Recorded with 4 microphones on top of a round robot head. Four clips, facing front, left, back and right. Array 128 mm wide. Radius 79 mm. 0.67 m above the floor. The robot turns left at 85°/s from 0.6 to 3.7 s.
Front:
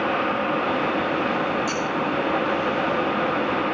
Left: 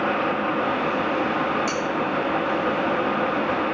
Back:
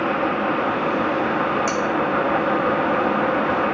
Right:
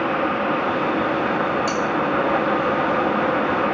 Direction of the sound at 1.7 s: 150° right.